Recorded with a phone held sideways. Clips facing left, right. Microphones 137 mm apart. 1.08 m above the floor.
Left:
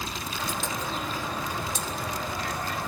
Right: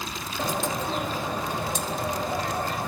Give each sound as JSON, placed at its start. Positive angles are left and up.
{"t": 0.4, "sound": "a bird", "side_deg": -55, "distance_m": 1.8}